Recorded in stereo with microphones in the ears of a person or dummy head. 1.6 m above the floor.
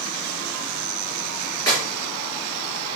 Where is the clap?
20° left (ahead or behind), 2.5 m.